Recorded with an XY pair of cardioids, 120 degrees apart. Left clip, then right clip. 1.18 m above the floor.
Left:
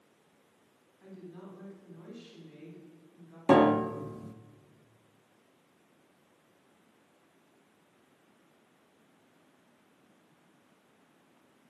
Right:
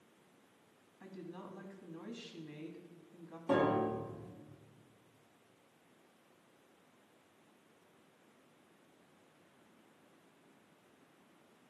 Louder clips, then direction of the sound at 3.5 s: Left 9 dB; 65° left.